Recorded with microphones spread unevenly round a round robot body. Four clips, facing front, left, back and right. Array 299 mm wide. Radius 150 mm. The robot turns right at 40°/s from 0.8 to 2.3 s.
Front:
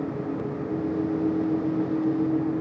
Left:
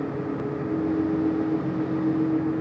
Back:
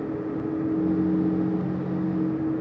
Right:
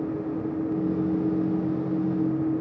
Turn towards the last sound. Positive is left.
No sound to turn to.